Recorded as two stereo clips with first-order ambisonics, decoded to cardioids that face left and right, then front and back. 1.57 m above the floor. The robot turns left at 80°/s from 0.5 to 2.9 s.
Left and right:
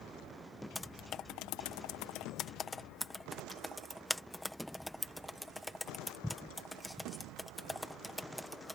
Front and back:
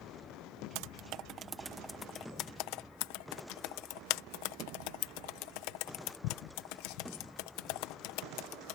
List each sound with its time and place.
0.8 s typing on a keyboard: 175° left; by 8.8 s straight ahead